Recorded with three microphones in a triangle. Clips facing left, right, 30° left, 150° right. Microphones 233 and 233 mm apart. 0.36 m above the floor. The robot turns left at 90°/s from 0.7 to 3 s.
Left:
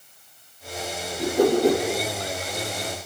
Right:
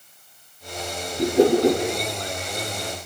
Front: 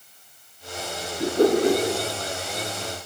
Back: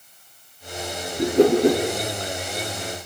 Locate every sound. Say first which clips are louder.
1.2 s a whoosh: right 2 dB, back 3 dB; 140° right, 5.5 m; by 1.8 s 165° left, 5.5 m